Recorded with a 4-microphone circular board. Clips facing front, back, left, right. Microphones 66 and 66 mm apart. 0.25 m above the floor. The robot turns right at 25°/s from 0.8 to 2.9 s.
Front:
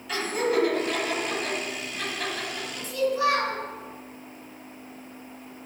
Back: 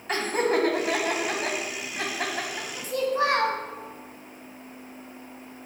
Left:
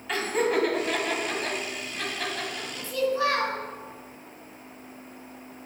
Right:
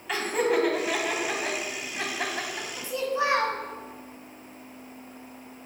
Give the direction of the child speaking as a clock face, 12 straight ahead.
5 o'clock.